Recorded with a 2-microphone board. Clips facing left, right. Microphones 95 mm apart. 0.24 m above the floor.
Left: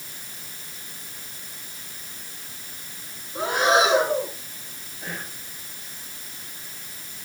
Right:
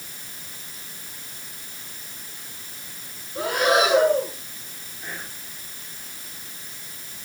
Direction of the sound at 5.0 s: 60° left (ahead or behind).